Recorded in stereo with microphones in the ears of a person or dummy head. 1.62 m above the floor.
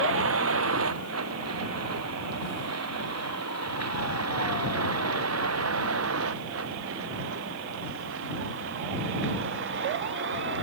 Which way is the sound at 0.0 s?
75° right (ahead or behind).